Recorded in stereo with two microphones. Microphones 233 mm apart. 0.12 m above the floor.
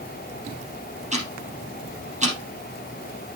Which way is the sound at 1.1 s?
30° right (ahead or behind).